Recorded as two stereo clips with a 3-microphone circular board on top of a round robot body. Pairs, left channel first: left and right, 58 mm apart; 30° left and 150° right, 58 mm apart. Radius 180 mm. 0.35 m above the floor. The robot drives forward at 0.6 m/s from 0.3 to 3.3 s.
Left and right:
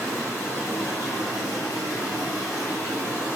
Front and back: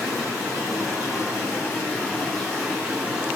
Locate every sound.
0.0 s running water: 45° left, 1.3 m; by 3.4 s 135° left, 1.2 m